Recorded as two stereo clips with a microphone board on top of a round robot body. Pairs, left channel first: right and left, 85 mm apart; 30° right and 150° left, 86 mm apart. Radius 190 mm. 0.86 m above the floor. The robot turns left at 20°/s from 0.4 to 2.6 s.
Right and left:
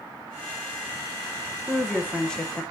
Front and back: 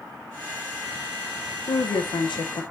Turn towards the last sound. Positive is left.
turn(degrees=-15)